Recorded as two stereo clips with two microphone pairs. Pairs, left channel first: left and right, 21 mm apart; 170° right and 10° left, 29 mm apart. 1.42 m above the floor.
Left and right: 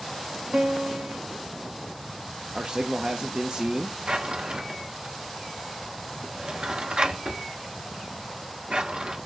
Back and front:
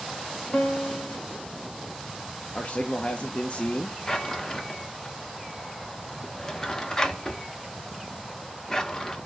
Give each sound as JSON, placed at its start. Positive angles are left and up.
{"t": 0.5, "sound": "a piano", "azimuth_deg": -115, "distance_m": 1.1}
{"t": 2.5, "sound": "a man speaking", "azimuth_deg": -130, "distance_m": 0.7}
{"t": 4.1, "sound": "a drawer", "azimuth_deg": -105, "distance_m": 0.7}